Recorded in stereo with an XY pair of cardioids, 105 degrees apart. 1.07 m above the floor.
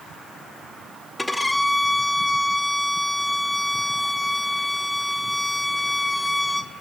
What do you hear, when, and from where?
1.2 s a violin: 10° left, 1.1 m